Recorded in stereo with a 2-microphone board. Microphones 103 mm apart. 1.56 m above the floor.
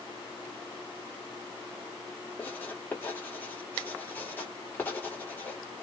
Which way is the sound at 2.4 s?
20° left (ahead or behind).